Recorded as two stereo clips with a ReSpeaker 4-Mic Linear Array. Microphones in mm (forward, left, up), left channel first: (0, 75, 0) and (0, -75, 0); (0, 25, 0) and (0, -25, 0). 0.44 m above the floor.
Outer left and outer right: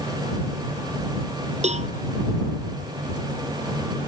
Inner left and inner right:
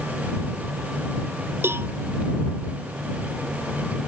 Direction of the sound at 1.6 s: 50° right (ahead or behind).